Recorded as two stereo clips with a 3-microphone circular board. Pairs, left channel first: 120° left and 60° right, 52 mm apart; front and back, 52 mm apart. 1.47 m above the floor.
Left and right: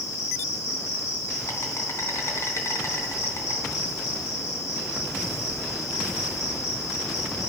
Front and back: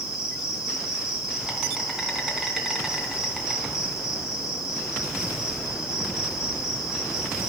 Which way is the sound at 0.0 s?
100° left.